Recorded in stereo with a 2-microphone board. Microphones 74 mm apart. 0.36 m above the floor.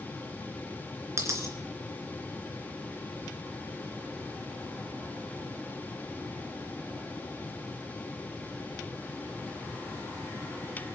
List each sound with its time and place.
1.2 s a dropped coin: 40° right (ahead or behind), 2.5 m